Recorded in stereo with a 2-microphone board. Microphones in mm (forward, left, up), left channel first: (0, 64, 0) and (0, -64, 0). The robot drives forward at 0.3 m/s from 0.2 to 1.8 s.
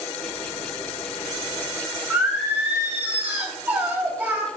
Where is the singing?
15° right (ahead or behind), 2.5 m.